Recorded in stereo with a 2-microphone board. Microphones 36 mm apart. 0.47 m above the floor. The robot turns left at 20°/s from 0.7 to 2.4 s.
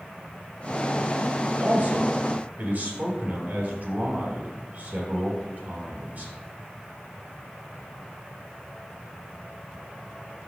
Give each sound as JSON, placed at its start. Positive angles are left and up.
{"t": 1.6, "sound": "a man speaking", "side_deg": -60, "distance_m": 3.5}